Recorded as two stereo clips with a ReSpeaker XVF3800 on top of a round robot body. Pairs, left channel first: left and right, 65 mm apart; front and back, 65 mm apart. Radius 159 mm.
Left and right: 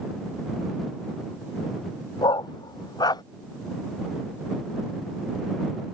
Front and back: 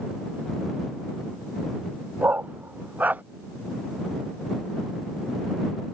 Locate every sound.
2.2 s a dog barking: 115° left